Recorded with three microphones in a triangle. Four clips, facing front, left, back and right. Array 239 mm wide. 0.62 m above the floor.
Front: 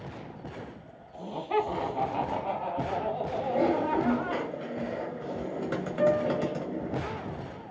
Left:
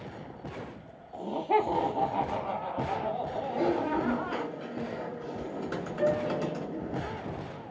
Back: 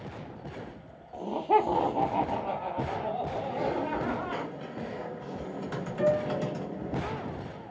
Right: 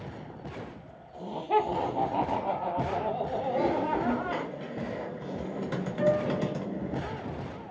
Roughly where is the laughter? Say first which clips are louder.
Even, back 4 dB; behind left.